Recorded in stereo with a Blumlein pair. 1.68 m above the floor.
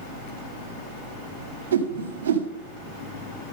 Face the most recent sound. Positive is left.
turn(degrees=-65)